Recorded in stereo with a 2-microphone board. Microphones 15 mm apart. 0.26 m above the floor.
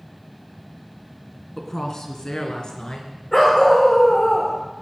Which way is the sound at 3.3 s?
25° left (ahead or behind).